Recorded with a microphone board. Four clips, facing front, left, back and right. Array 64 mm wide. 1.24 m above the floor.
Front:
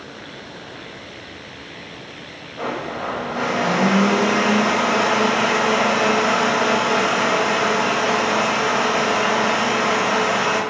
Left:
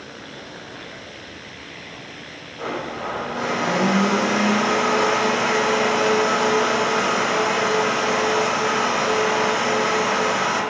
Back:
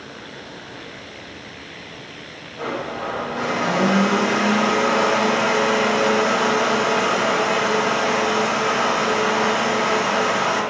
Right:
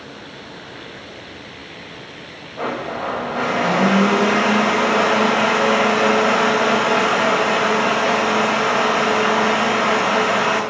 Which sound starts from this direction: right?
A blender, at 2.6 s.